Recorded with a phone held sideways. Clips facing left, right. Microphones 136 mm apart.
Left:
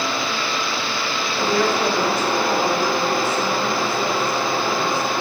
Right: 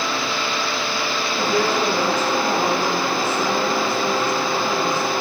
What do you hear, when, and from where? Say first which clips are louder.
1.4 s a woman speaking: left 1 dB; 35° right (ahead or behind), 7.5 m